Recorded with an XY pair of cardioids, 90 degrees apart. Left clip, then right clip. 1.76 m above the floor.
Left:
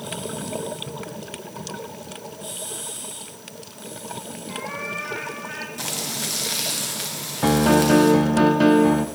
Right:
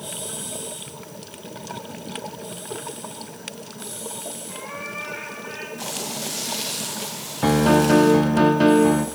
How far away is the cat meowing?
About 7 m.